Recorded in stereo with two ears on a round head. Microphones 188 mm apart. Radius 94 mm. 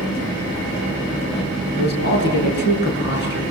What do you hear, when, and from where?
1.8 s a man speaking: 50° left (ahead or behind), 6 m